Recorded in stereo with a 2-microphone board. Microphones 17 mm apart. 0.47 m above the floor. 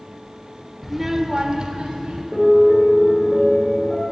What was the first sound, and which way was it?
A child speaking, 5° right (ahead or behind).